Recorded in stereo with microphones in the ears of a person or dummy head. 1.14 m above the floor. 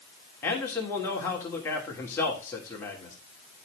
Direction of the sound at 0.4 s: 15° left (ahead or behind).